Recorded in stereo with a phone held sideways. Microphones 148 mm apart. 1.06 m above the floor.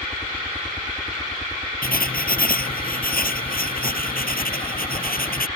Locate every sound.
0.0 s a helicopter: 15° left (ahead or behind)
1.8 s writing: 75° left (ahead or behind)